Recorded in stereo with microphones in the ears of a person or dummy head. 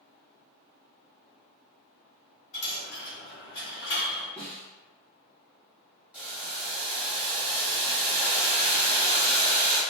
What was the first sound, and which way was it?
A dropped coin, 50° left (ahead or behind).